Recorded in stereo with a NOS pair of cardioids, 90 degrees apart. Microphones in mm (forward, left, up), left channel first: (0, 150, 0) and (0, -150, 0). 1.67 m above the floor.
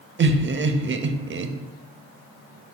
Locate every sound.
0.2 s laughter: 40° right, 0.8 m